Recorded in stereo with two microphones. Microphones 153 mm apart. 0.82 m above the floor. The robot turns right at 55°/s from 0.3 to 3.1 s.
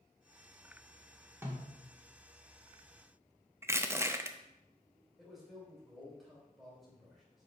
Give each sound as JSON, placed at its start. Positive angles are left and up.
{"t": 1.4, "sound": "a snare drum", "side_deg": -15, "distance_m": 1.5}
{"t": 3.6, "sound": "crushing", "side_deg": -15, "distance_m": 0.5}
{"t": 5.2, "sound": "a man speaking", "side_deg": 0, "distance_m": 3.0}